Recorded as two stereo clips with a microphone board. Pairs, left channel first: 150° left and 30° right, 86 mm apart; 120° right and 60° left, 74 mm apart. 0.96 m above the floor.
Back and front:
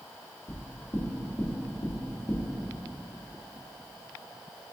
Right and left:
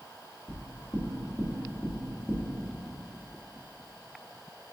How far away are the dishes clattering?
No dishes clattering in this recording.